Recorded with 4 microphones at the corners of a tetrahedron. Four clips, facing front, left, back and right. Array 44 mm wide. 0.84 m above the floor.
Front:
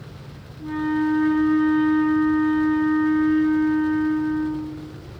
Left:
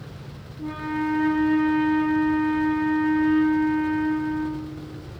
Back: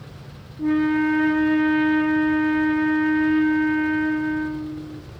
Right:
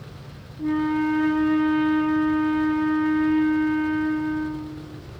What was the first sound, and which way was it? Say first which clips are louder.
A flute: right 5 dB, back 3 dB; 175° right.